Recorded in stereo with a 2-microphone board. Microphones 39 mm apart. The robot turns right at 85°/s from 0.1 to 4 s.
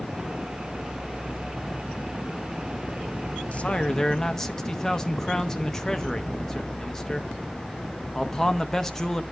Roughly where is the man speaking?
Behind left.